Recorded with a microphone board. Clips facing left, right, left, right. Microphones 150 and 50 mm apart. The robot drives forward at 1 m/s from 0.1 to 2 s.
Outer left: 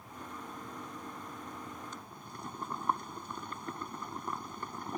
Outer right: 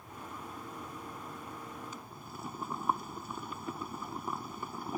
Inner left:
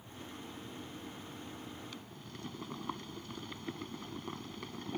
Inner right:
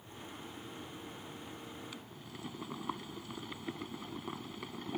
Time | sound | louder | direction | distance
1.9 | boiling | outer right 1 dB, even | 5° right (ahead or behind) | ?